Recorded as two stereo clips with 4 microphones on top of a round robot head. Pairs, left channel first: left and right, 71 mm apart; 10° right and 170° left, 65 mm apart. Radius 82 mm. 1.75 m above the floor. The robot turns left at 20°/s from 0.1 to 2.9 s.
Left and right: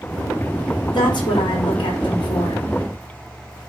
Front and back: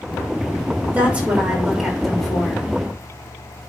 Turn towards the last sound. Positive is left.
turn(degrees=70)